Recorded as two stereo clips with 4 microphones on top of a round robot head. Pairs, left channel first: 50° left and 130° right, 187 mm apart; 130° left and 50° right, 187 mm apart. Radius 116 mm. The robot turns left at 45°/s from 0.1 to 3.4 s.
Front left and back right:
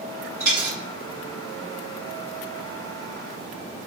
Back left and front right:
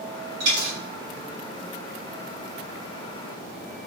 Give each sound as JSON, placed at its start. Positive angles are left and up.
{"t": 0.4, "sound": "a dropped coin", "azimuth_deg": -55, "distance_m": 1.2}